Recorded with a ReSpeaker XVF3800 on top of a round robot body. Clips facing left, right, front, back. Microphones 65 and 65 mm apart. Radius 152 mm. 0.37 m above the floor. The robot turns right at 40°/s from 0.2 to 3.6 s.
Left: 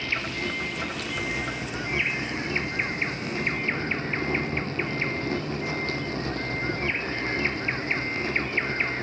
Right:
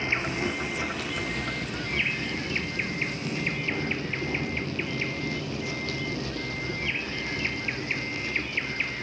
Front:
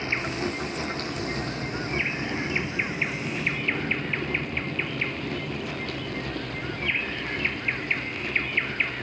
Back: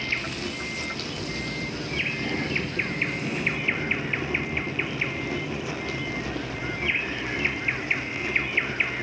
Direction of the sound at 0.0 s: 35° right.